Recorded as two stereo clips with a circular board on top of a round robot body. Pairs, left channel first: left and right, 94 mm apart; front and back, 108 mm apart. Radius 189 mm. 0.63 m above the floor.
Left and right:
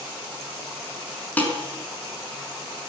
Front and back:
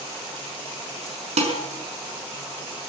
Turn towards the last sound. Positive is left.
turn(degrees=165)